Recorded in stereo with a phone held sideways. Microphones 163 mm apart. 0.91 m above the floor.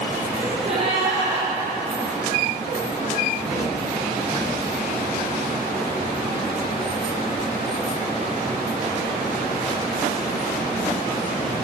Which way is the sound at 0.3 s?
40° right (ahead or behind).